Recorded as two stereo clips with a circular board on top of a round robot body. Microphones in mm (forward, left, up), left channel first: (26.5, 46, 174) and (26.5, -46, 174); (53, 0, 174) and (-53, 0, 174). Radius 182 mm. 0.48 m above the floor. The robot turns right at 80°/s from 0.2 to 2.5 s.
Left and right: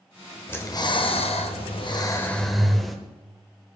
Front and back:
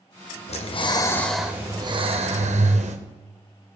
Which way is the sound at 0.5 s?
20° left.